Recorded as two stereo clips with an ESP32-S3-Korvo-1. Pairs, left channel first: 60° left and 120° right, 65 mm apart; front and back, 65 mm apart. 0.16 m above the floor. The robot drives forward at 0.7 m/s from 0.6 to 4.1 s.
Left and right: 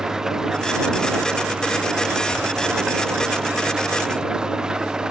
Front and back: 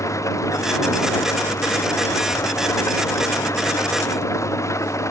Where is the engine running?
40° right.